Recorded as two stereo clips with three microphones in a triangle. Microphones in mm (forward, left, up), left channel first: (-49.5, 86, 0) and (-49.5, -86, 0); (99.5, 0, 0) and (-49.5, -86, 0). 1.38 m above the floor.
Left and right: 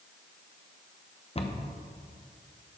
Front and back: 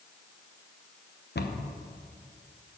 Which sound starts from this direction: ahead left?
A cupboard door, at 1.4 s.